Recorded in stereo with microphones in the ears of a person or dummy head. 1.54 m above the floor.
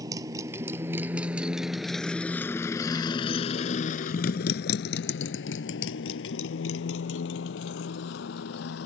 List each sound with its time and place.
0.0 s a motorcycle: 20° right (ahead or behind); by 8.9 s 75° left (ahead or behind)